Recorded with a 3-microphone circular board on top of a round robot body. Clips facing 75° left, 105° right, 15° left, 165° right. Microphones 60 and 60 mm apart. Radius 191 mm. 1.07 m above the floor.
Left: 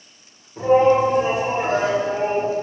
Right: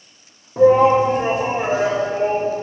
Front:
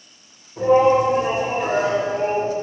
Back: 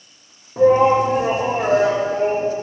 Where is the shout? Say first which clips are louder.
Right 3 dB, back 2 dB; 115° right, 1.5 m; by 2.5 s 150° left, 1.9 m.